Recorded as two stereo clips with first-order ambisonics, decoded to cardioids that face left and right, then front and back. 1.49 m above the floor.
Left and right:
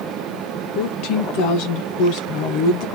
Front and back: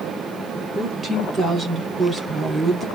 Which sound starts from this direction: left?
A woman speaking, at 0.8 s.